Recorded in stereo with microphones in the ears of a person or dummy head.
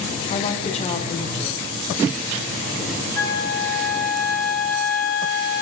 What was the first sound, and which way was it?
A woman speaking, 30° left (ahead or behind).